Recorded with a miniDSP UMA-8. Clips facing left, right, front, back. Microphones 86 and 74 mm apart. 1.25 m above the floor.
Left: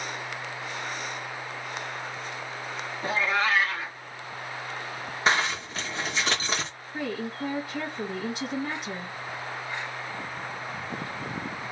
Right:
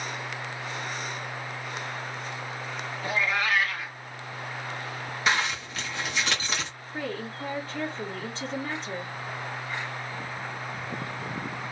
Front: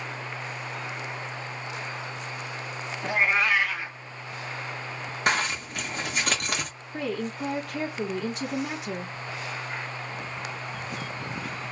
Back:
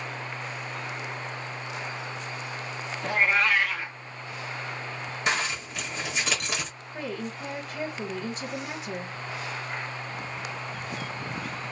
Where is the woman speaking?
10° left, 1.2 m.